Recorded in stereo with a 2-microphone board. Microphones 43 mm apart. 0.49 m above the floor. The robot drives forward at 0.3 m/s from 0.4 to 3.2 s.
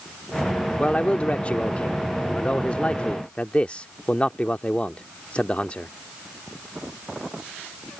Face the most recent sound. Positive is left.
turn(degrees=30)  # may be behind; listen again after turning